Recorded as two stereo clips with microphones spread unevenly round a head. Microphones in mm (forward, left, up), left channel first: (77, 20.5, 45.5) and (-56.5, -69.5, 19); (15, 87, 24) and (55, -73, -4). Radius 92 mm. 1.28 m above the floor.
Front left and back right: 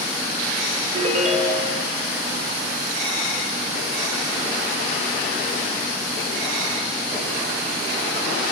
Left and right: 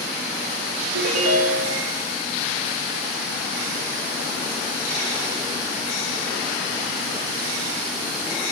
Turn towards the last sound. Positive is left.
turn(degrees=-100)